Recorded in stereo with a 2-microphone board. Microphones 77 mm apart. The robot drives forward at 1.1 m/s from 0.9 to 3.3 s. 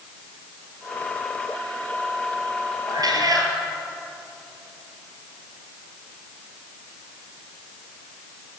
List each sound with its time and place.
2.9 s a cat meowing: 60° right (ahead or behind), 3.5 m; by 3.5 s 55° right (ahead or behind), 3.5 m